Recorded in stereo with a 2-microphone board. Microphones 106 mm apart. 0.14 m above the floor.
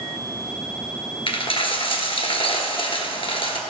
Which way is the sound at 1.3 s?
60° left (ahead or behind).